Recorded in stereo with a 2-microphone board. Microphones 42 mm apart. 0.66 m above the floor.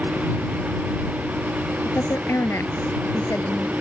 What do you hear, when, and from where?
1.9 s a woman speaking: 75° left (ahead or behind); by 3.7 s 70° left (ahead or behind)